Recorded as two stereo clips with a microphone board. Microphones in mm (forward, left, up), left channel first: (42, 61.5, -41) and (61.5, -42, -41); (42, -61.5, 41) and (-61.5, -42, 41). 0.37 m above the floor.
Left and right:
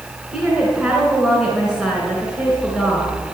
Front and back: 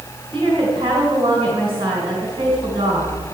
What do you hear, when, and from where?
0.3 s a woman speaking: 160° right, 3.5 m